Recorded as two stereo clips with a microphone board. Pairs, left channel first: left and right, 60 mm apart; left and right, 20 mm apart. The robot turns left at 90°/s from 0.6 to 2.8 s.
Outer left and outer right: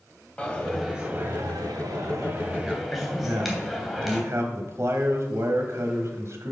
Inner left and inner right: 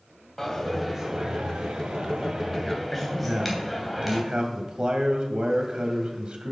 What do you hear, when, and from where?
0.4 s a dropped coin: 15° left, 3 m; by 4.2 s straight behind, 3 m
3.2 s a man speaking: 55° right (ahead or behind), 1.6 m